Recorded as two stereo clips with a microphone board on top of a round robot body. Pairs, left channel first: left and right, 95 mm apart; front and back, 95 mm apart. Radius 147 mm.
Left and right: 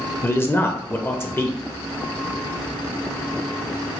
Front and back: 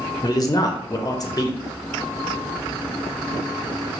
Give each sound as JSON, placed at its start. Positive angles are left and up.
{"t": 0.2, "sound": "a man speaking", "azimuth_deg": 35, "distance_m": 0.6}